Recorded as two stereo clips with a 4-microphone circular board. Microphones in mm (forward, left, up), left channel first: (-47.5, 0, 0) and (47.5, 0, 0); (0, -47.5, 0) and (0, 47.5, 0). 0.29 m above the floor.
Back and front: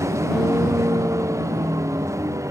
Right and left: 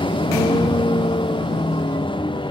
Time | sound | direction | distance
0.0 | a vehicle | 60° right | ?